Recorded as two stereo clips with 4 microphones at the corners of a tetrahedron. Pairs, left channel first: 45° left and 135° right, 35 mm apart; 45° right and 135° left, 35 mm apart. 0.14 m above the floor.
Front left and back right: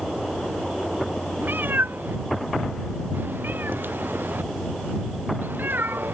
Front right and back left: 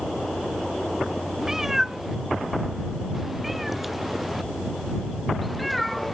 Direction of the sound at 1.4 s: 150° right.